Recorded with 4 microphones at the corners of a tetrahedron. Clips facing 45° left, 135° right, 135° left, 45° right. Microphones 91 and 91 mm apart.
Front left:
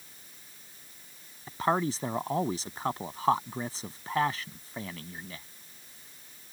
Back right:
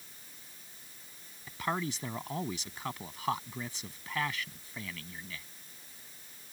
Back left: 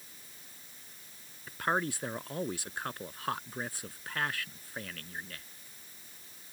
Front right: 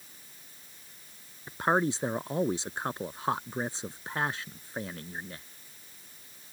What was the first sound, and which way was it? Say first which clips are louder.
A man speaking: front left 7 dB, front right 5 dB; 10° left.